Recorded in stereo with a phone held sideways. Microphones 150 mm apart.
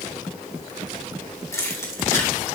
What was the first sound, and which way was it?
Keys jangling, 20° left (ahead or behind).